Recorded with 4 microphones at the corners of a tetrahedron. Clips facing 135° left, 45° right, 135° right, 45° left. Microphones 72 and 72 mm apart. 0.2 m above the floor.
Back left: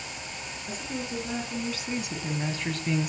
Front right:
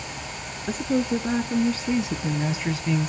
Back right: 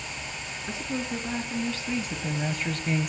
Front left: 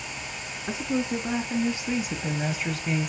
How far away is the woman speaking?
About 3 m.